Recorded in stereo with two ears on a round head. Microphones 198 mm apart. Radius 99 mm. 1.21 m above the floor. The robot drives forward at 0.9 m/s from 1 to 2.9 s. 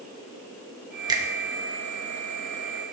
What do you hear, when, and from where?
1.1 s a finger snap: 20° right (ahead or behind), 1.0 m; by 1.2 s 15° right (ahead or behind), 1.2 m